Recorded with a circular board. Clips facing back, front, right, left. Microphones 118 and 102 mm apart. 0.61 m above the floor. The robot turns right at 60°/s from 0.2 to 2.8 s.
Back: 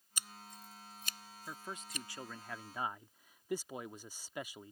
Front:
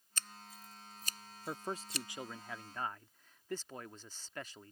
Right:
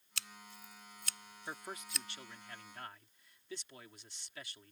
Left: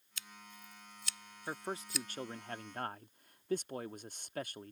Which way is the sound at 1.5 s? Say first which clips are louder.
Front 6 dB, left 5 dB; 25° left.